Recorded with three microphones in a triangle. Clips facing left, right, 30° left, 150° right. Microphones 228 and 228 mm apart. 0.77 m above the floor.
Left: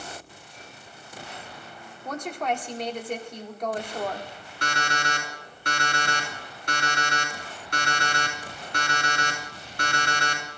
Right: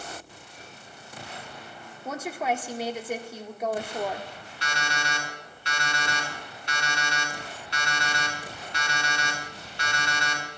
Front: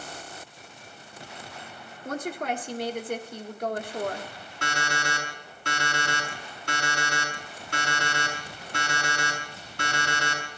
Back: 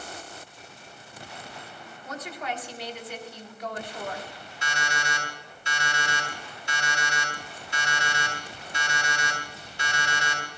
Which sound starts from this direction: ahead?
A woman speaking, at 2.0 s.